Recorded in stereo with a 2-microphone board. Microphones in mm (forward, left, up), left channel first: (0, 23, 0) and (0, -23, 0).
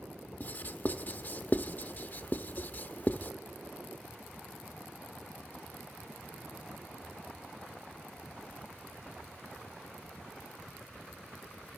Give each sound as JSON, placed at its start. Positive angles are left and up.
{"t": 0.4, "sound": "writing", "side_deg": 40, "distance_m": 0.8}